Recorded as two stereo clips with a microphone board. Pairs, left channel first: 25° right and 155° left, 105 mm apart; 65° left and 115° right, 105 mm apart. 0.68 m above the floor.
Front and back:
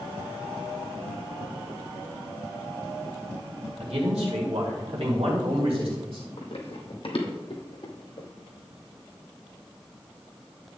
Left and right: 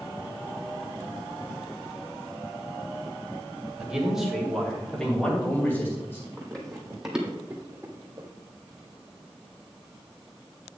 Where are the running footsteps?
10° right, 1.5 m; by 8.3 s 60° right, 1.4 m.